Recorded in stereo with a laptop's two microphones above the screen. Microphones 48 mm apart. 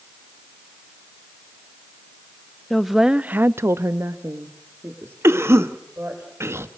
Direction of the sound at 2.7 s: Centre (ahead or behind).